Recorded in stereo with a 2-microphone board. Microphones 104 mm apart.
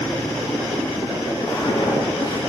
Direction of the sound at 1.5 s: 35° left (ahead or behind).